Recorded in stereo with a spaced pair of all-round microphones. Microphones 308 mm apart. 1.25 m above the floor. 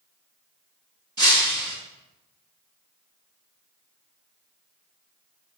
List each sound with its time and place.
1.2 s breaking glass: 70° right (ahead or behind), 4 m